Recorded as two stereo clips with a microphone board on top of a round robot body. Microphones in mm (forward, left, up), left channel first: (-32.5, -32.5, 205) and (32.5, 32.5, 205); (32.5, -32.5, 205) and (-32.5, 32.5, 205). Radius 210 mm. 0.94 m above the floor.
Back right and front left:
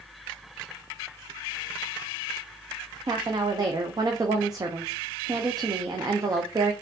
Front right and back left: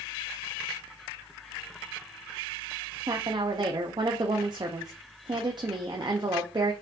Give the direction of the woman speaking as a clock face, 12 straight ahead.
9 o'clock.